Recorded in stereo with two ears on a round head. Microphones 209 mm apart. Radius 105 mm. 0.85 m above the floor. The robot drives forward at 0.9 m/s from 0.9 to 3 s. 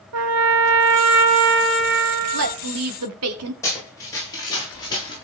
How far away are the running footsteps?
About 9 m.